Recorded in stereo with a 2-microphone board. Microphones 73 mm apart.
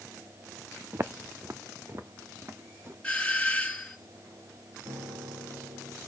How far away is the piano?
About 8 m.